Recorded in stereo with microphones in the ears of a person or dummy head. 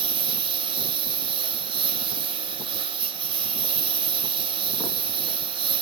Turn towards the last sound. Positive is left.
turn(degrees=-30)  # may be behind; listen again after turning